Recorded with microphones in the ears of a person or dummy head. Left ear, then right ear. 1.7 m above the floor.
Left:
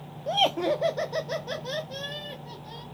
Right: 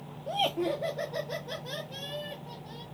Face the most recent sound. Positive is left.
turn(degrees=35)  # may be behind; listen again after turning